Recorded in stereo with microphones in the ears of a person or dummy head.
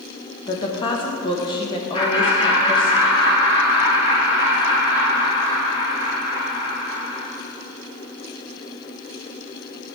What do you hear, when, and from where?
0.5 s a woman speaking: 20° left (ahead or behind), 1.2 m
1.9 s laughter: 25° left (ahead or behind), 2.5 m